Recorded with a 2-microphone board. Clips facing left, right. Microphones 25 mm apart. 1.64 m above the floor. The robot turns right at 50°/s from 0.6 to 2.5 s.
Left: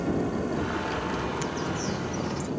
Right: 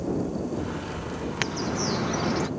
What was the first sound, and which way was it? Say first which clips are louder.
An aircraft: left 1 dB; 65° left.